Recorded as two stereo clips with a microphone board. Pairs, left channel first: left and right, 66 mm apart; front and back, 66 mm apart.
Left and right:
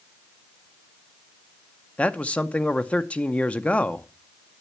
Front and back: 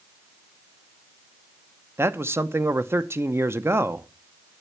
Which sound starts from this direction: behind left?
A man speaking, at 2.0 s.